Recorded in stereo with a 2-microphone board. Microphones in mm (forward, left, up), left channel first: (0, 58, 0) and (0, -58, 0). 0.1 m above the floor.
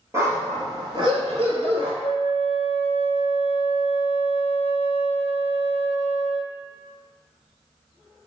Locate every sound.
0.1 s a dog barking: 25° right (ahead or behind), 1.1 m; by 1.9 s 55° right (ahead or behind), 1.2 m
2.0 s a flute: 60° left (ahead or behind), 0.5 m